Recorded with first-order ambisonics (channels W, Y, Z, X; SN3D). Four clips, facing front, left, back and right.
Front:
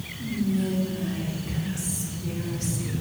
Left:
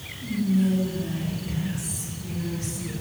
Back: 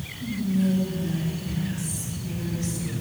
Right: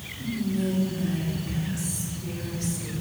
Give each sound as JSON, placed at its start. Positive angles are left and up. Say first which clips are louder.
{"t": 0.2, "sound": "whispering", "louder": "left 4 dB, back 1 dB", "azimuth_deg": -30, "distance_m": 2.5}